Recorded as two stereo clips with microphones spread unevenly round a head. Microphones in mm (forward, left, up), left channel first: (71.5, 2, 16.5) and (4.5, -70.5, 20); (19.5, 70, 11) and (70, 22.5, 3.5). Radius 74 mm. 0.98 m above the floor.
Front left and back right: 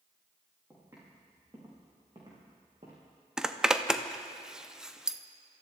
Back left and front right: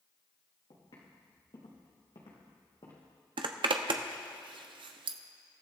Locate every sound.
0.7 s footsteps: 155° left, 5 m; by 3.0 s straight behind, 3 m
3.4 s a zipper: 50° right, 0.7 m